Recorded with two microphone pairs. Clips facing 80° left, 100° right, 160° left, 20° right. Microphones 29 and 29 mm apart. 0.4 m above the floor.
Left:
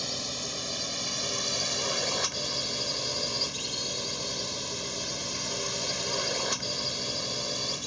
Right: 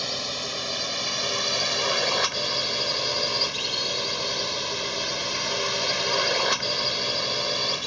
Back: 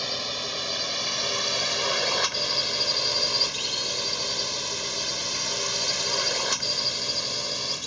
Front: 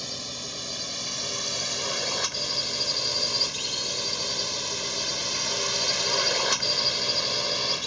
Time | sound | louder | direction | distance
0.0 | a drone | right 5 dB, back 5 dB | 155° right | ?